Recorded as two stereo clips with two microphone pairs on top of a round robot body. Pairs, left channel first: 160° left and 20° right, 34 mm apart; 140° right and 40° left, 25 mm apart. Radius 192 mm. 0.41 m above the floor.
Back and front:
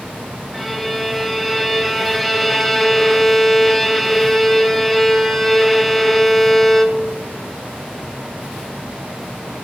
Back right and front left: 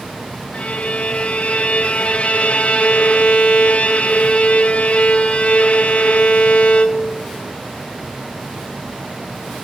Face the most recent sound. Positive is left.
turn(degrees=-110)